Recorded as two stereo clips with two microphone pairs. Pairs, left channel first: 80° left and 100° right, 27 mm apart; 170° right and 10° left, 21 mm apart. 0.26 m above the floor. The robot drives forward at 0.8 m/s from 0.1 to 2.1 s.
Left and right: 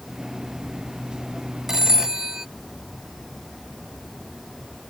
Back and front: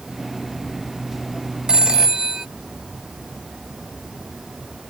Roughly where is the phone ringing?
Ahead right.